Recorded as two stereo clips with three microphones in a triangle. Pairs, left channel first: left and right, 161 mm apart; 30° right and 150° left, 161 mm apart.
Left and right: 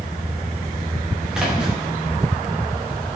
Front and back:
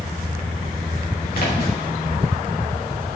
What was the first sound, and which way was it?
A splash, 5° right.